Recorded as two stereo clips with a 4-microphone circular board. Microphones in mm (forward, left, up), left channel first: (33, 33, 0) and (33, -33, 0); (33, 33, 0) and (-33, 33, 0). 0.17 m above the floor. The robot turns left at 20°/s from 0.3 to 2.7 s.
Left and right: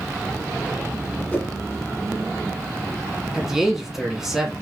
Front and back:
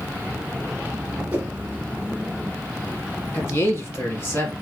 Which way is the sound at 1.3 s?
130° left.